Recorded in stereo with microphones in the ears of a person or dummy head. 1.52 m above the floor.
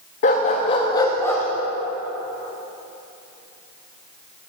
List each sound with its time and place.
0.2 s a dog barking: 35° left (ahead or behind), 1.0 m; by 1.4 s 10° left (ahead or behind), 1.3 m